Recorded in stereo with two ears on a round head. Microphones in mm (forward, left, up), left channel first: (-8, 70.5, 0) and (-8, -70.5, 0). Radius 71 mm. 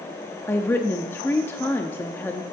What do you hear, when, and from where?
0.5 s a woman speaking: 15° left (ahead or behind), 0.7 m